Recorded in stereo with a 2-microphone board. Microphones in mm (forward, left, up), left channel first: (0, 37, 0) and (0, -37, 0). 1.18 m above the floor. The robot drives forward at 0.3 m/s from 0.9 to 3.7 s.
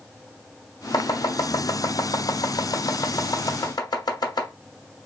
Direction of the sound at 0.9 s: 65° left (ahead or behind).